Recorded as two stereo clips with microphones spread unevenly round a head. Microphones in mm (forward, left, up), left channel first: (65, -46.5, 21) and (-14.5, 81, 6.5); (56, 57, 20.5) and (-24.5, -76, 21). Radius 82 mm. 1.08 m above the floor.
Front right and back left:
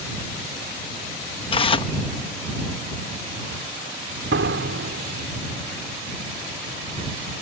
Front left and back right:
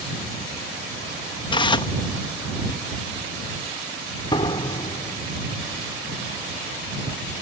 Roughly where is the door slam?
Behind left.